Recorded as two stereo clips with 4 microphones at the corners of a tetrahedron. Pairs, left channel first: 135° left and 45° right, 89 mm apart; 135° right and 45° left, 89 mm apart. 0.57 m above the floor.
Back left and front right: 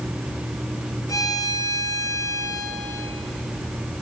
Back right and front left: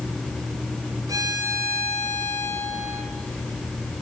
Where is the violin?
90° left, 3 m.